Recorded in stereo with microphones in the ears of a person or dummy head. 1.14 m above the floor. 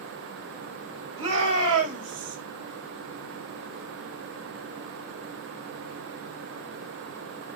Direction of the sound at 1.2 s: 35° right (ahead or behind).